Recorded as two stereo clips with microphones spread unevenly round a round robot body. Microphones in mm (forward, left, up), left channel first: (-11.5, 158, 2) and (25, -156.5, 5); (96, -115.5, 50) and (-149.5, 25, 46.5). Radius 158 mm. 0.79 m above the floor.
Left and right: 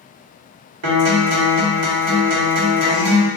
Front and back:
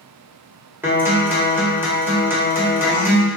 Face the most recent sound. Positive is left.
turn(degrees=-130)